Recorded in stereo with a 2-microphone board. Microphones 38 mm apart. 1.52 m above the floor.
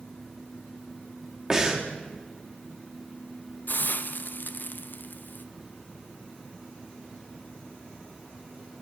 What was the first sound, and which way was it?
Breathing, 15° right (ahead or behind).